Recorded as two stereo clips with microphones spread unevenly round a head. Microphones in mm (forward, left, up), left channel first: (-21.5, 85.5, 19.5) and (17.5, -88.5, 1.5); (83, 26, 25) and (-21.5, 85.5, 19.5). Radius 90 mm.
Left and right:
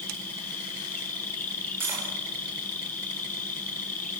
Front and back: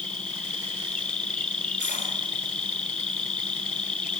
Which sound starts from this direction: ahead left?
An insect, at 0.0 s.